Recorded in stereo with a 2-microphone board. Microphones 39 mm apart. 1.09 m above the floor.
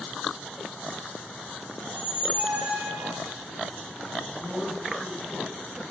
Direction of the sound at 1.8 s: 35° right (ahead or behind).